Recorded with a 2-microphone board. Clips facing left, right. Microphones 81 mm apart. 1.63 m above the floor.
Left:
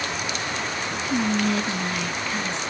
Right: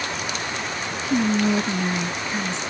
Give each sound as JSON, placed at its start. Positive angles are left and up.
{"t": 1.1, "sound": "whispering", "side_deg": -20, "distance_m": 0.5}